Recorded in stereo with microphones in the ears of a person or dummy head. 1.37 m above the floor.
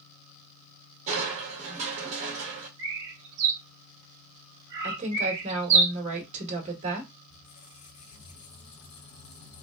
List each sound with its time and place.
1.1 s crushing: 40° right (ahead or behind), 1.3 m
2.8 s a bird: 30° right (ahead or behind), 1.6 m
4.8 s a woman speaking: 35° right (ahead or behind), 1.4 m
7.3 s a squeak: 30° left (ahead or behind), 1.8 m